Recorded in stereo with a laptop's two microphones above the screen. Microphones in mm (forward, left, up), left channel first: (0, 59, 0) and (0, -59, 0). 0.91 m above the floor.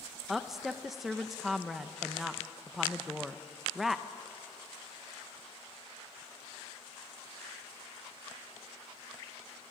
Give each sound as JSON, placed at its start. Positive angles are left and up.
{"t": 0.3, "sound": "a woman speaking", "side_deg": 0, "distance_m": 0.8}